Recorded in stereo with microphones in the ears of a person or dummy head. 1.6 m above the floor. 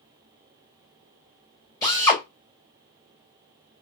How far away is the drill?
About 2 m.